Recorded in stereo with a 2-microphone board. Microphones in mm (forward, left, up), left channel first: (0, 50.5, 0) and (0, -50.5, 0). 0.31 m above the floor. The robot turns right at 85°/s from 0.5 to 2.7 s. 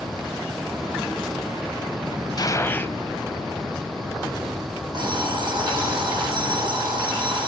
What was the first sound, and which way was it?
A gunshot, 45° left (ahead or behind).